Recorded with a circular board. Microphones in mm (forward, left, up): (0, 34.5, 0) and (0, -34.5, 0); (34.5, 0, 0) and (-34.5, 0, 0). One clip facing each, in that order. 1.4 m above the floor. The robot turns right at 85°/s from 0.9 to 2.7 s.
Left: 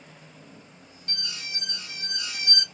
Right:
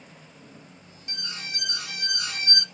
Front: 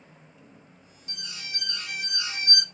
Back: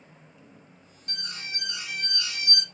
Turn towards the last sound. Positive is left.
turn(degrees=-25)